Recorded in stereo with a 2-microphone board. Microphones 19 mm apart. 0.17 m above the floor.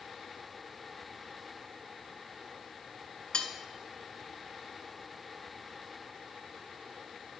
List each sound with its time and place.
3.3 s cutlery clinking: 55° left (ahead or behind), 1.5 m